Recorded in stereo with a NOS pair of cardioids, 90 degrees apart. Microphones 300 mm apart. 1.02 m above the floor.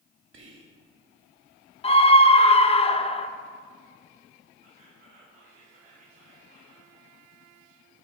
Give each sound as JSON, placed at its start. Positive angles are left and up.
{"t": 0.3, "sound": "whispering", "azimuth_deg": -40, "distance_m": 2.0}
{"t": 1.8, "sound": "a scream", "azimuth_deg": 20, "distance_m": 0.6}
{"t": 4.6, "sound": "whispering", "azimuth_deg": -45, "distance_m": 3.0}